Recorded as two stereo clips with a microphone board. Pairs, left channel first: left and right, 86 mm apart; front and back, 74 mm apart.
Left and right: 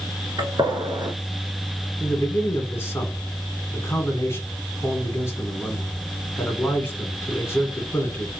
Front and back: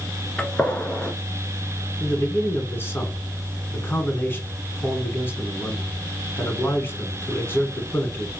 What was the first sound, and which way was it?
A gunshot, 70° right.